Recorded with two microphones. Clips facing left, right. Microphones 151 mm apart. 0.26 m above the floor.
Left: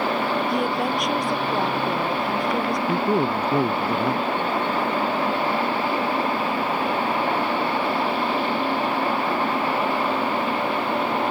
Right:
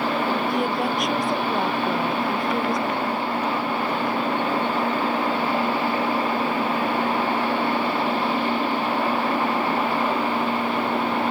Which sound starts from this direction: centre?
A woman speaking, at 0.5 s.